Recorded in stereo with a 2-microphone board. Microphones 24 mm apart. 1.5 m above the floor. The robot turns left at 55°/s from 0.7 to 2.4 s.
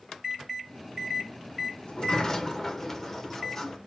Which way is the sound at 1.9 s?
55° left.